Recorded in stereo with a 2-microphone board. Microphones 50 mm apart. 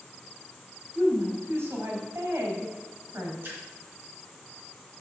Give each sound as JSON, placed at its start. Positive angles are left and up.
{"t": 0.9, "sound": "a woman speaking", "side_deg": -60, "distance_m": 3.5}
{"t": 3.4, "sound": "a splash", "side_deg": -45, "distance_m": 3.5}